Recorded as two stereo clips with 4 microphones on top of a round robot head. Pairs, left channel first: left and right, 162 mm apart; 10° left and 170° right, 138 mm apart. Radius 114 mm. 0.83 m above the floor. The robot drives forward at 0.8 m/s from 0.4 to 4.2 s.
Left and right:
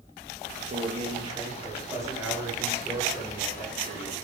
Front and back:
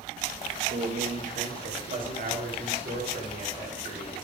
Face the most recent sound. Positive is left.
turn(degrees=-170)